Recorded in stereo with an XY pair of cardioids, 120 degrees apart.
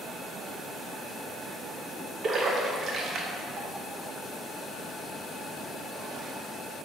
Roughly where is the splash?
Ahead right.